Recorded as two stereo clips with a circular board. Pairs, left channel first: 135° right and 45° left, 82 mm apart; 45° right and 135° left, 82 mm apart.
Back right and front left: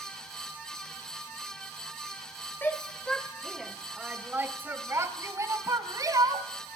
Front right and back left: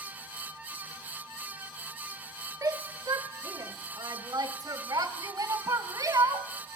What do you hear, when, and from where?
2.6 s a shout: 165° left, 1.4 m; by 6.5 s 85° left, 2.5 m